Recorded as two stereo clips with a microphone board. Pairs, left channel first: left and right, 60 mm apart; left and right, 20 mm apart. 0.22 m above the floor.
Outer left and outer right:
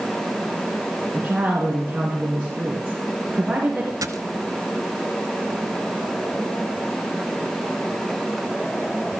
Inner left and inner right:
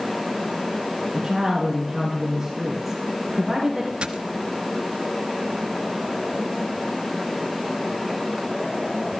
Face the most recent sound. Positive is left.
turn(degrees=-75)  # may be behind; listen again after turning